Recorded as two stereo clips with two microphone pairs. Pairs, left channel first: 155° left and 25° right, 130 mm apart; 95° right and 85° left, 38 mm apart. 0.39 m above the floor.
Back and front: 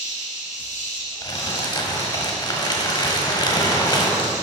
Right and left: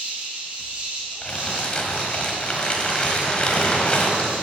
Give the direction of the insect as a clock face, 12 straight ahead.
7 o'clock.